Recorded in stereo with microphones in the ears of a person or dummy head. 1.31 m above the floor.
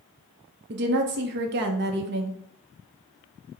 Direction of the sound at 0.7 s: 60° right (ahead or behind).